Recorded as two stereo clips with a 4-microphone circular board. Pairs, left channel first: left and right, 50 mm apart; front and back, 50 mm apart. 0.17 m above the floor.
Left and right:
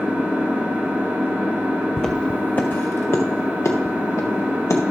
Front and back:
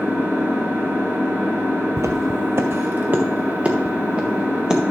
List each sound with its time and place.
0.0 s an engine running: 140° right, 3 m
2.0 s footsteps: 170° left, 0.7 m; by 4.9 s 105° left, 1.9 m